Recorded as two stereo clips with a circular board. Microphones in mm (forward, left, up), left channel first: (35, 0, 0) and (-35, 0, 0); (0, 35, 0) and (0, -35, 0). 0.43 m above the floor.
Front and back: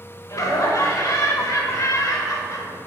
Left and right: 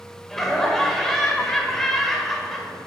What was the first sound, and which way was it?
Laughter, 5° left.